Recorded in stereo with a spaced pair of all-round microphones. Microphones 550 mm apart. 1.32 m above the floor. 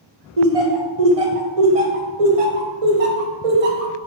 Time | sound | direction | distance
0.4 | laughter | 75° right (ahead or behind) | 0.9 m